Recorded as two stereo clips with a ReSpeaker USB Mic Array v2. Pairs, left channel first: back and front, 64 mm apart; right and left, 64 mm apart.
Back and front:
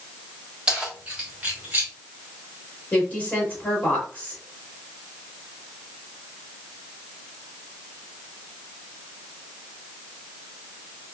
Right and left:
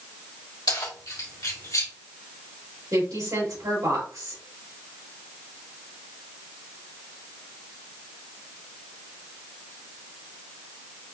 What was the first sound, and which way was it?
Keys jangling, 75° right.